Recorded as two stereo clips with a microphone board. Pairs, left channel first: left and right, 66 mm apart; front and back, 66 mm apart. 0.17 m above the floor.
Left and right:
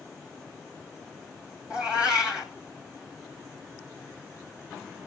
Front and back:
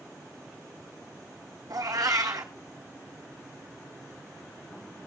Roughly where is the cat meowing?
Behind.